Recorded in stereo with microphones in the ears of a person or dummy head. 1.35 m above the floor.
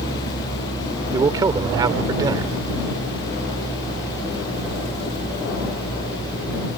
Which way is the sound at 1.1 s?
25° right (ahead or behind).